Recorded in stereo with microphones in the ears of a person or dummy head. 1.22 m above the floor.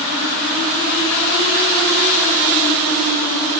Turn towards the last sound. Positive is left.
No sound to turn to.